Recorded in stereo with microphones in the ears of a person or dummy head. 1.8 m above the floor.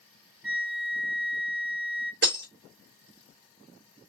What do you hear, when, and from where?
0.4 s a flute: 5° right (ahead or behind), 0.8 m
2.2 s breaking glass: 60° right (ahead or behind), 3 m